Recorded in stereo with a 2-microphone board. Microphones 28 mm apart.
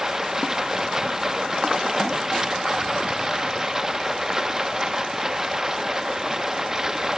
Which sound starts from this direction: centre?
Running water, at 0.0 s.